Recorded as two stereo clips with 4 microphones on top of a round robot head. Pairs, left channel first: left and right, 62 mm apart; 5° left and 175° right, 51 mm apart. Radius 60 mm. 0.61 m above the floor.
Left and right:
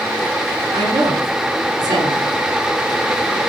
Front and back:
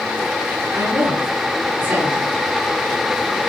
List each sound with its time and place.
0.7 s a woman speaking: 110° right, 7.5 m